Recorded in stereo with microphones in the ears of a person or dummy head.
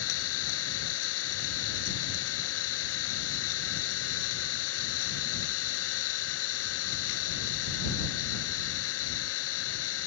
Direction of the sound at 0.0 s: 85° left.